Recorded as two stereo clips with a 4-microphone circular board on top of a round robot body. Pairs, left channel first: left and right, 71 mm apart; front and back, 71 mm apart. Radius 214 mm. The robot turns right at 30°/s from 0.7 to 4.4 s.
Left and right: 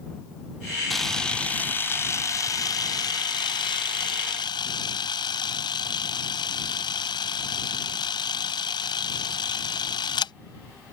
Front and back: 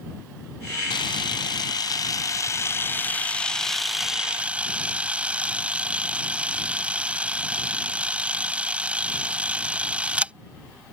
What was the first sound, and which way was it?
A camera shutter, straight ahead.